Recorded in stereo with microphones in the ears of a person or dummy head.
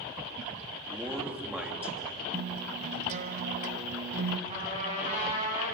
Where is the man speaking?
10° right (ahead or behind), 3 m.